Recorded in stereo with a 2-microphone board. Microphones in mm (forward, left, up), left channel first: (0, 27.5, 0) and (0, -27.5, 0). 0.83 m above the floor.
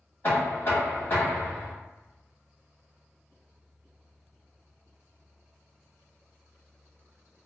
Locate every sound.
0.2 s knocking: 40° left (ahead or behind), 1.3 m